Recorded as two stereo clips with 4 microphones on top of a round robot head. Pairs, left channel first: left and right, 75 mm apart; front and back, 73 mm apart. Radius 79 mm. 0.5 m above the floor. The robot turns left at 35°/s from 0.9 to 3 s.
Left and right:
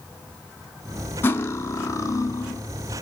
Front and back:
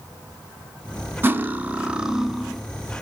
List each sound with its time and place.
1.2 s cutlery clinking: 135° left, 0.5 m; by 2.6 s 85° left, 0.5 m